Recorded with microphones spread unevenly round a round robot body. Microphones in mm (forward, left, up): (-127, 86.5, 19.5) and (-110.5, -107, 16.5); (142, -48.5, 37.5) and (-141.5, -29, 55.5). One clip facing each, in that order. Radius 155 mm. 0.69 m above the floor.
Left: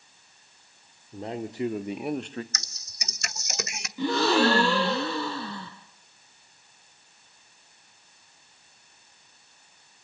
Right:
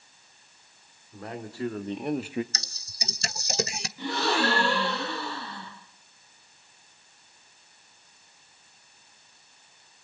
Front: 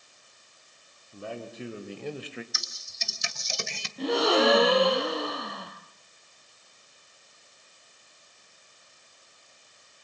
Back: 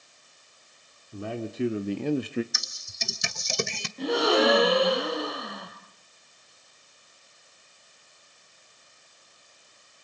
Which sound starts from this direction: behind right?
Typing on a keyboard, at 2.5 s.